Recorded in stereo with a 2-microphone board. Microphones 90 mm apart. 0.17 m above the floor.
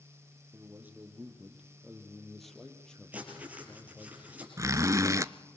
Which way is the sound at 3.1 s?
15° right (ahead or behind).